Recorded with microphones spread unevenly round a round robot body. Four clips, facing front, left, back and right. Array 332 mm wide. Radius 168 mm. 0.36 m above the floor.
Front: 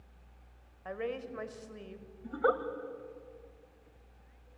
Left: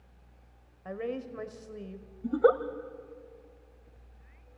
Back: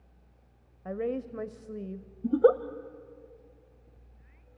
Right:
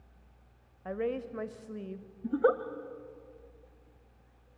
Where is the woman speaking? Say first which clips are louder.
Right 2 dB, back 5 dB; 165° right, 1.2 m.